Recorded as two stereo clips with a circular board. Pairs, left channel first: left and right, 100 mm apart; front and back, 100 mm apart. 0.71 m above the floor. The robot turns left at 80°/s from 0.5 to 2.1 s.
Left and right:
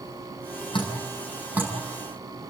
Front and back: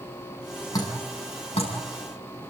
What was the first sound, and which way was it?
Dripping, 55° left.